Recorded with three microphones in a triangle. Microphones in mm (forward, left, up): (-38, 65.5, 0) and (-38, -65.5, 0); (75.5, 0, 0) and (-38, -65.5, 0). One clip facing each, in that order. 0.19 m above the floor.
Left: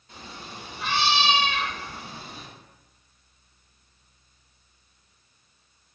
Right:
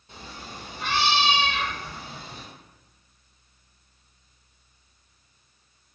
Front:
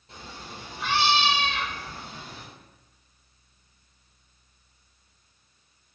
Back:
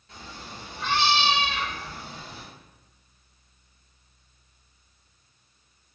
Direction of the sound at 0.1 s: 30° right.